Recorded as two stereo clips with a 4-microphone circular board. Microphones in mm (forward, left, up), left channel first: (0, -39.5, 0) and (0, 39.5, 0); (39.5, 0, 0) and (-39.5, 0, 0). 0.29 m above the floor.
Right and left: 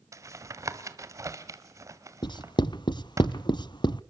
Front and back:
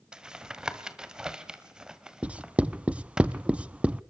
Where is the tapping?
105° left, 1.7 m.